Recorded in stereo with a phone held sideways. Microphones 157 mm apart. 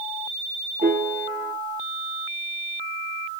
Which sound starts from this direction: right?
A piano, at 0.8 s.